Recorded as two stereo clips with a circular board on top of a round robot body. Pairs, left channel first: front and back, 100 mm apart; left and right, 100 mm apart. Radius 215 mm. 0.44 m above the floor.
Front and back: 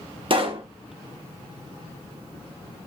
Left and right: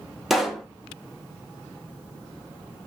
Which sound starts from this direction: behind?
A pop, at 0.3 s.